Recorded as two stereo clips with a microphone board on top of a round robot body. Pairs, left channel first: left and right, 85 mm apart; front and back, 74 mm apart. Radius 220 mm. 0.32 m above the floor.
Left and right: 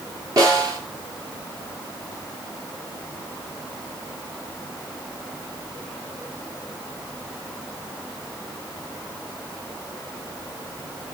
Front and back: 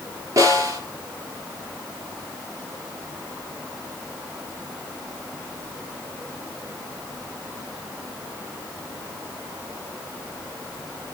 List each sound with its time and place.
0.4 s a snare drum: 135° right, 4 m